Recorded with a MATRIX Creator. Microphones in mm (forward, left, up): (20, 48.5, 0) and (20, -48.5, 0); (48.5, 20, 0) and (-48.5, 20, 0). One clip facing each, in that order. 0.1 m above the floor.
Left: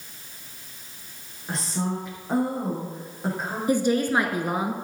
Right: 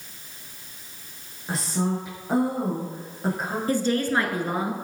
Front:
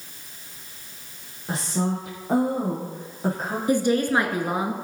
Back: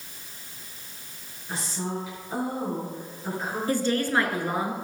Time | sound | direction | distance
1.5 | a woman speaking | 5° right | 3.5 m
3.7 | a woman speaking | 40° left | 1.2 m